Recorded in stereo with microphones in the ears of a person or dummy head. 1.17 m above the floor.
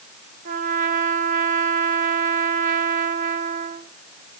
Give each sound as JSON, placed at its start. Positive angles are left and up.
{"t": 0.5, "sound": "a trumpet", "side_deg": -50, "distance_m": 1.1}